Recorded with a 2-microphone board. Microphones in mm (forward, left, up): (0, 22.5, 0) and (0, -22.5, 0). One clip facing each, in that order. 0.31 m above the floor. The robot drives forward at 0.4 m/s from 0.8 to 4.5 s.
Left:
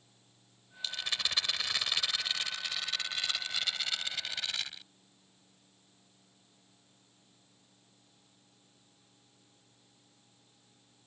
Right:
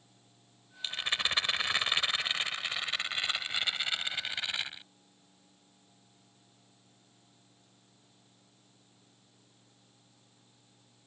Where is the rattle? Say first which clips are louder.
Right 3 dB; 30° right (ahead or behind); by 4.9 s 20° right (ahead or behind).